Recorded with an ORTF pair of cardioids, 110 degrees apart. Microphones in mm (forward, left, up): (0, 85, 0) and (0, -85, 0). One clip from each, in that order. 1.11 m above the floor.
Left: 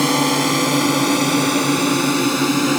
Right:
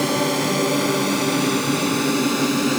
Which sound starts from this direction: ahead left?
A drone, at 0.0 s.